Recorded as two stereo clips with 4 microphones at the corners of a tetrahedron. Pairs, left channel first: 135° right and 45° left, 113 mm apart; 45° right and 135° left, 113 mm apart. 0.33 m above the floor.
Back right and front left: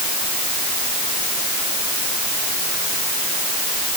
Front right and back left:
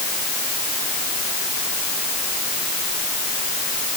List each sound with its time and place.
Only background noise.